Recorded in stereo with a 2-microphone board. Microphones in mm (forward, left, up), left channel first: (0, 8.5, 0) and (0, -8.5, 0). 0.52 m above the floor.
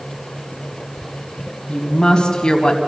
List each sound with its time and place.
1.7 s a woman speaking: 40° left (ahead or behind), 3.5 m